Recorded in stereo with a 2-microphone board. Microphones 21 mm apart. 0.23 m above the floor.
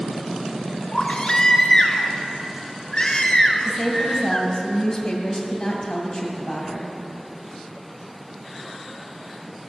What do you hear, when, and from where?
0.9 s a baby crying: 35° left (ahead or behind), 1.4 m
3.6 s a woman speaking: 30° left (ahead or behind), 1.7 m